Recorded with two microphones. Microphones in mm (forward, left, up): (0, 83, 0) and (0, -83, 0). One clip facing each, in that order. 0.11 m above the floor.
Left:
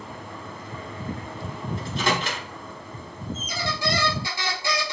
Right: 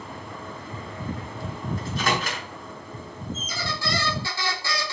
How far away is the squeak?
About 1.1 m.